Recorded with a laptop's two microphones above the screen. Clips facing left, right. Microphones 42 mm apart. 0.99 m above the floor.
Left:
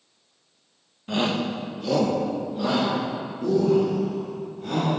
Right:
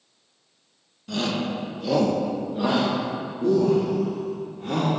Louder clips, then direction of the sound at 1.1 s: Left 2 dB; 30° left (ahead or behind).